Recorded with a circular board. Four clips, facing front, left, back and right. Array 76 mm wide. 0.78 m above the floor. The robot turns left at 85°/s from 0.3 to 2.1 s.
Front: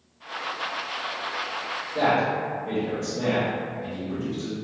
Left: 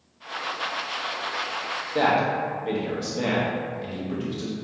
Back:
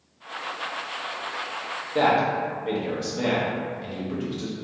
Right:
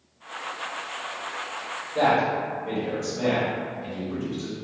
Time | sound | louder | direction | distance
1.9 | a man speaking | even, back 2 dB | 135° left | 0.8 m